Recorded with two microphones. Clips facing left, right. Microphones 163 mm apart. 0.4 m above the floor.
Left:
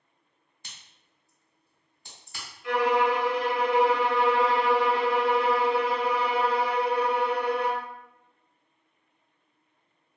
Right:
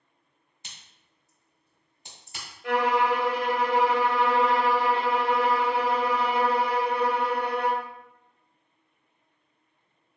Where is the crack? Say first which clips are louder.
Right 1 dB; 20° right (ahead or behind), 1.4 m.